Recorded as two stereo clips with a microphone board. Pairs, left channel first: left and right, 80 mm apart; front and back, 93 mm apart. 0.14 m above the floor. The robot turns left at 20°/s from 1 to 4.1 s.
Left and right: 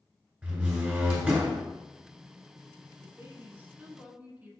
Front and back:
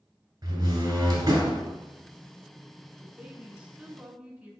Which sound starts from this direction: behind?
A door slam, at 0.4 s.